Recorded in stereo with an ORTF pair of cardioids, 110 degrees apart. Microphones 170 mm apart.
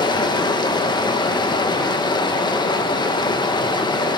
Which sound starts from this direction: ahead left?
Running water, at 0.0 s.